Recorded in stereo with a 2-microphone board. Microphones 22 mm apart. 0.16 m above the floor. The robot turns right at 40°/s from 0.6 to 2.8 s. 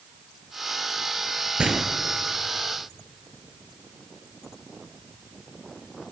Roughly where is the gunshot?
Right.